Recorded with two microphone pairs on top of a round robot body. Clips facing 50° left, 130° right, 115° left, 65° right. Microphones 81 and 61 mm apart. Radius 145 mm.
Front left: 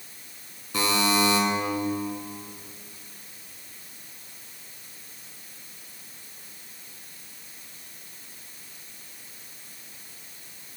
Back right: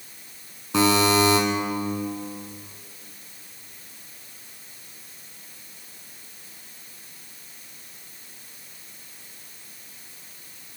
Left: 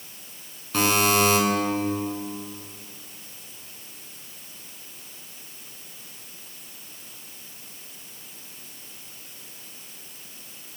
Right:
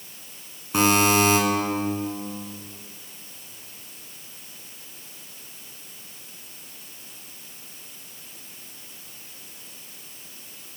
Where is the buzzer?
140° right, 2.0 m.